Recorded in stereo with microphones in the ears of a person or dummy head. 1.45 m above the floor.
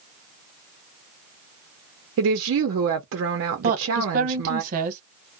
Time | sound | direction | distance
2.2 | a woman speaking | 70° right (ahead or behind) | 0.7 m
3.6 | a woman speaking | 50° right (ahead or behind) | 0.9 m